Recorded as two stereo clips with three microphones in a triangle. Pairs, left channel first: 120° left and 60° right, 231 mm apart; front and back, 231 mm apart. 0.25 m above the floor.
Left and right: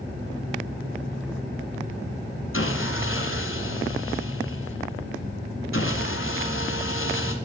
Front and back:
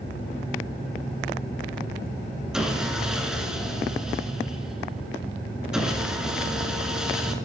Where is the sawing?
95° left, 1.0 m.